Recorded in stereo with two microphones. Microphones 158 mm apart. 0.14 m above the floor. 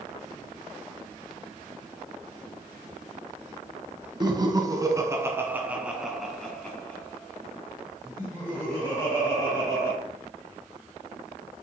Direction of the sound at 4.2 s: 30° right (ahead or behind).